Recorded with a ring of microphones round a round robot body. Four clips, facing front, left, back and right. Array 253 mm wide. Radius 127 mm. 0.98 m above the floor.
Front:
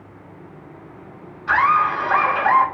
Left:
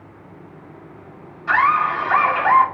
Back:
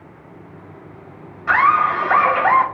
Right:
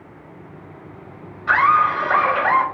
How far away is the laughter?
About 5.5 m.